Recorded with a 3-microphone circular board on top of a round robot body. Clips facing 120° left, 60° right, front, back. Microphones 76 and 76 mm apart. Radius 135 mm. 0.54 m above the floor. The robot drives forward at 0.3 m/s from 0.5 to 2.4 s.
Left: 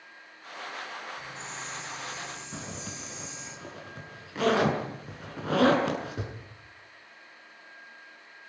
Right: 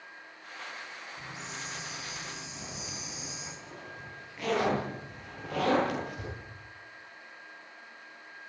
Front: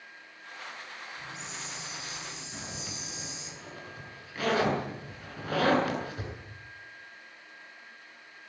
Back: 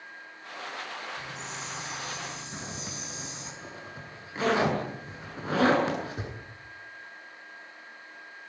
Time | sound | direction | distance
1.2 | a hiss | 140° right | 6.5 m
2.5 | a zipper | 115° left | 8 m